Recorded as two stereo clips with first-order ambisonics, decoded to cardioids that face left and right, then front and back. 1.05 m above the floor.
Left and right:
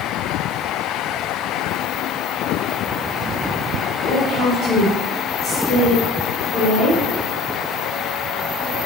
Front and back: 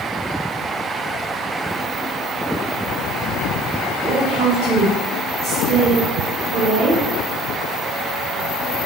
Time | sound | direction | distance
4.0 | a woman speaking | 145° left | 1.0 m